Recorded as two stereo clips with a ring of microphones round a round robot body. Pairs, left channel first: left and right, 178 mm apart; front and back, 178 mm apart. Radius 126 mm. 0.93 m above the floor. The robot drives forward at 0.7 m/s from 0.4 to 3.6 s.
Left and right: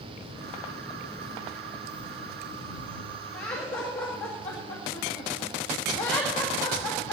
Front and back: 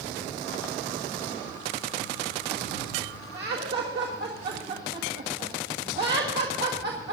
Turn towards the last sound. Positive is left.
turn(degrees=170)